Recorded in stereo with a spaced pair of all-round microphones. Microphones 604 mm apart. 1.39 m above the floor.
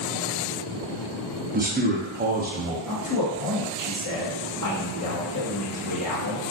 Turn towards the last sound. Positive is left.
turn(degrees=30)  # may be behind; listen again after turning